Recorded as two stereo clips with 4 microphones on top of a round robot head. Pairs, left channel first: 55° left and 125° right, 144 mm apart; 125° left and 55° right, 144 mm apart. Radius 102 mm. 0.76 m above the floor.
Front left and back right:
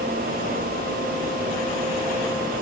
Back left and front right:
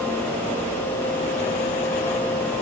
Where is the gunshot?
I don't hear a gunshot.